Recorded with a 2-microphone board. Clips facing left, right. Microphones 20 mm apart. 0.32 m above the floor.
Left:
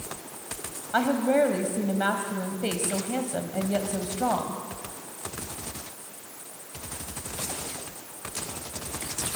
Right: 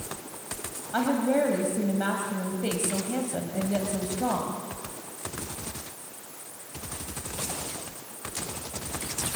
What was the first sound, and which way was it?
A woman speaking, 25° left (ahead or behind).